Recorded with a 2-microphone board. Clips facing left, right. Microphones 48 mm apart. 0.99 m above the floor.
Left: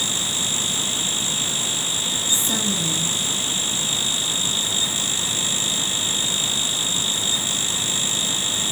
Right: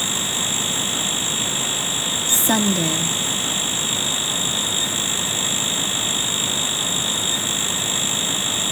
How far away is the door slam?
No door slam in this recording.